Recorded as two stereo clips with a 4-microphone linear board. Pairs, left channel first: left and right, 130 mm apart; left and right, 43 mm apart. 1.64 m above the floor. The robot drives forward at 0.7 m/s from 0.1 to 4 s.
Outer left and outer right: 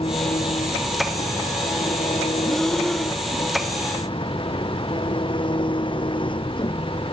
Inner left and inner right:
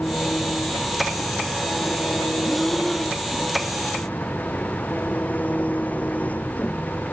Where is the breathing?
5° left (ahead or behind).